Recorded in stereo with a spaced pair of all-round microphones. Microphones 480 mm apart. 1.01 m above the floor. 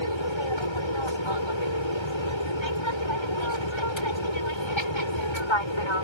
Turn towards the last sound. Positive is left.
turn(degrees=70)  # may be behind; listen again after turning